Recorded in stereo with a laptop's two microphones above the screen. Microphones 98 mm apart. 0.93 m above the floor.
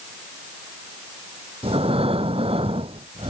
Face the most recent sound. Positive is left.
turn(degrees=-75)  # may be behind; listen again after turning